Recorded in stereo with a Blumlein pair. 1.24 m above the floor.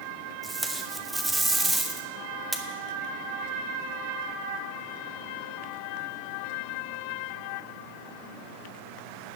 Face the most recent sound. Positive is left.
turn(degrees=-5)